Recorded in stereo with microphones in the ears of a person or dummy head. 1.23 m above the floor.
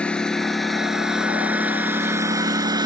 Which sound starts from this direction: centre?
A lawn mower, at 0.0 s.